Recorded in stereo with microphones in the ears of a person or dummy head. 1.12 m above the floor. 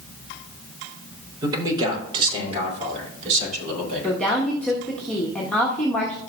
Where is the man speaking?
20° right (ahead or behind), 3.5 m; by 4.5 s 40° right (ahead or behind), 5 m.